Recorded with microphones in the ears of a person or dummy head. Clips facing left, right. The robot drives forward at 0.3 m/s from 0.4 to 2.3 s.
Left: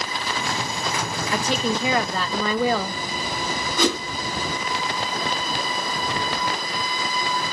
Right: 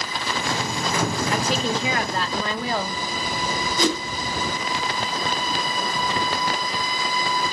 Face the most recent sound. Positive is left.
turn(degrees=55)  # may be behind; listen again after turning